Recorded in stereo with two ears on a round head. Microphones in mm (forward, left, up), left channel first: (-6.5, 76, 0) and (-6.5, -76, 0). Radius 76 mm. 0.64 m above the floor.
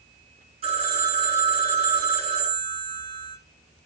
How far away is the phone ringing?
About 3.5 m.